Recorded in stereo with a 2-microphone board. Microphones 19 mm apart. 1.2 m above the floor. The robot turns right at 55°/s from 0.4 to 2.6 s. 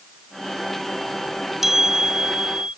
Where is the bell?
165° right; by 2.8 s 115° right.